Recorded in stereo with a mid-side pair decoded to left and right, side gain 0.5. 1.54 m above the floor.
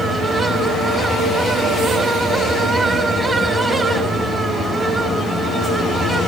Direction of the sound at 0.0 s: 35° right.